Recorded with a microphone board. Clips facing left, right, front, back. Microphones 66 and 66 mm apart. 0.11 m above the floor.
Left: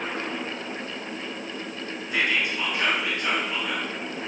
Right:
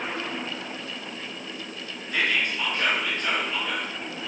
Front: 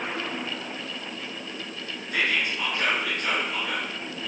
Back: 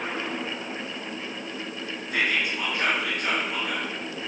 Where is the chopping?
No chopping in this recording.